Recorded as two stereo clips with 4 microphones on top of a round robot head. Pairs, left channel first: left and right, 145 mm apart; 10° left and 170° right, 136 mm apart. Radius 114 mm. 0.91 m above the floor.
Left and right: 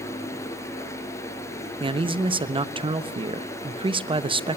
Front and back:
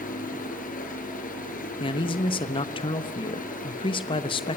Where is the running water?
20° left, 4.5 m.